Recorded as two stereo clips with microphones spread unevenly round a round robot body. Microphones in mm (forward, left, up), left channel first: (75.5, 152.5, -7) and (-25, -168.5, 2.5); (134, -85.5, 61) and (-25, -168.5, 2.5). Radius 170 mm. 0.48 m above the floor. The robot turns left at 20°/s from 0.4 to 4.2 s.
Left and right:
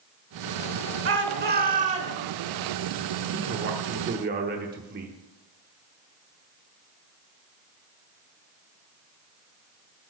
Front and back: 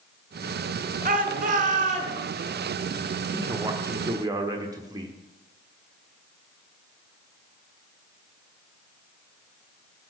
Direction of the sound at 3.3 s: 140° right.